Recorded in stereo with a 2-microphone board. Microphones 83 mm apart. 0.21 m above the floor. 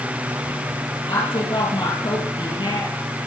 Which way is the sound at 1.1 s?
80° left.